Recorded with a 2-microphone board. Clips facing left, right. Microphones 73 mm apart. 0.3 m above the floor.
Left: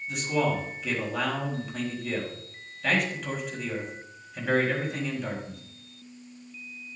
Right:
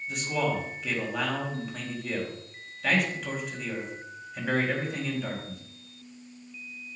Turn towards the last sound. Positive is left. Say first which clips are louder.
# left 2 dB
turn(degrees=0)  # may be behind; listen again after turning